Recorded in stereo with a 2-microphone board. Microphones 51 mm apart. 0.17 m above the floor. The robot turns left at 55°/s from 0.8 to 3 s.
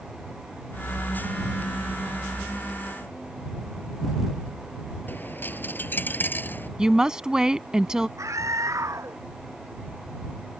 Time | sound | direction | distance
5.1 | a dropped coin | 40° left (ahead or behind) | ?
6.8 | a woman speaking | 15° right (ahead or behind) | ?
8.2 | a scream | 80° right | ?